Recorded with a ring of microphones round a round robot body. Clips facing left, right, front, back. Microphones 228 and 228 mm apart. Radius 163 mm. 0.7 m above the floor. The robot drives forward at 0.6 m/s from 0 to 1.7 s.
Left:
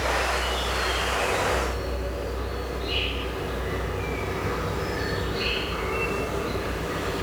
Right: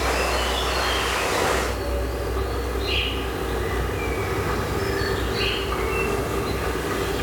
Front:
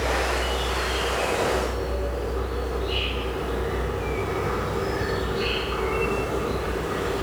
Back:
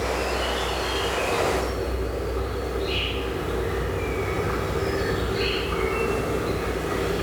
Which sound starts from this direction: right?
An insect, at 0.0 s.